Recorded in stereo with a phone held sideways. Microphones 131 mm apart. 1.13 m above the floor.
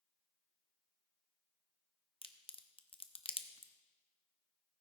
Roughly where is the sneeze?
No sneeze in this recording.